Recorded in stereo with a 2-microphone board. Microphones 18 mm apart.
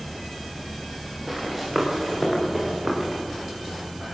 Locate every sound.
1.3 s running footsteps: 15° right (ahead or behind), 7.5 m; by 3.2 s 25° right (ahead or behind), 6 m